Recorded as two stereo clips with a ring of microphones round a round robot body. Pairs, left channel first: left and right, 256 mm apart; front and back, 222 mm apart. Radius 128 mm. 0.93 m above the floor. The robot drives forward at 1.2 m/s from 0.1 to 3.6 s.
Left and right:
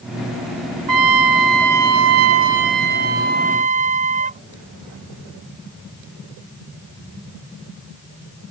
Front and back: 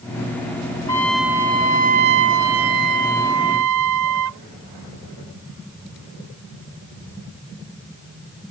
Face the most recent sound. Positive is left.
turn(degrees=-155)